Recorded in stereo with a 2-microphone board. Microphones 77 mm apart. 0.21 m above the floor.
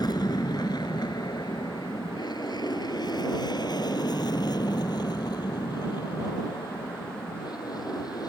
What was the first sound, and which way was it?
An aircraft, 65° left (ahead or behind).